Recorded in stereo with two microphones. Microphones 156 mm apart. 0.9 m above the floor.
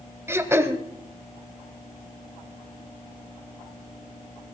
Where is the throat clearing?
15° right (ahead or behind), 1.2 m.